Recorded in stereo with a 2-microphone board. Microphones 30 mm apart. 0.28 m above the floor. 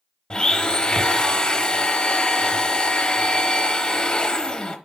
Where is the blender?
30° left (ahead or behind), 0.7 m.